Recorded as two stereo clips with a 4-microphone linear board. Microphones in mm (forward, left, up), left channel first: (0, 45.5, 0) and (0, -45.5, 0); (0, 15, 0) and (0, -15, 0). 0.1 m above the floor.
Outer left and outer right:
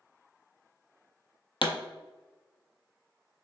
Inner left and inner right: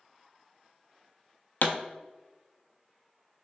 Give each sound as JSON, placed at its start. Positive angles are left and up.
{"t": 1.6, "sound": "a pop", "side_deg": 65, "distance_m": 0.5}